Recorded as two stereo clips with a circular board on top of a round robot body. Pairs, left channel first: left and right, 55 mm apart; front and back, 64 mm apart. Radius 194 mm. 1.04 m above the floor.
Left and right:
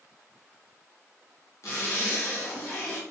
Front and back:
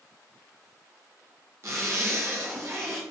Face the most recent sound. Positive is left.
turn(degrees=130)